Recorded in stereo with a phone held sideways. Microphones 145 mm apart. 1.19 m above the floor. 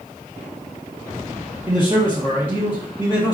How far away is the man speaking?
About 1.2 m.